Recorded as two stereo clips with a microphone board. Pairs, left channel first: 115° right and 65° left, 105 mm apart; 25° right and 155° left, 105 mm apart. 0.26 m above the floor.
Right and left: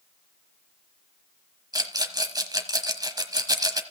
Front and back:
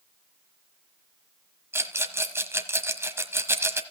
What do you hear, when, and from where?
1.7 s a rattle: 100° left, 1.2 m